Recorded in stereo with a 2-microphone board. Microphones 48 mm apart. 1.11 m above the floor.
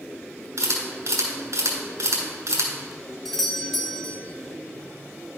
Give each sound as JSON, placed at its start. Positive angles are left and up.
{"t": 0.6, "sound": "a camera shutter", "side_deg": -80, "distance_m": 2.5}
{"t": 3.2, "sound": "a doorbell", "side_deg": 5, "distance_m": 0.9}